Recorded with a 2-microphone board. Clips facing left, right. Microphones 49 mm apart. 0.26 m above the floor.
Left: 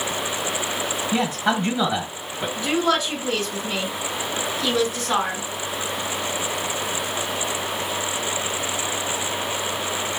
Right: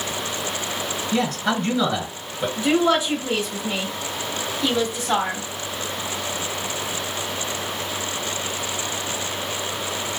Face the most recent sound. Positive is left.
turn(degrees=-25)  # may be behind; listen again after turning